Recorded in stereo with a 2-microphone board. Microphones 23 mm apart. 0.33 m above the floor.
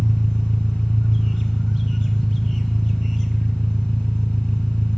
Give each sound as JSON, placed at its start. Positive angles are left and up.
{"t": 0.0, "sound": "an engine running", "side_deg": 80, "distance_m": 0.7}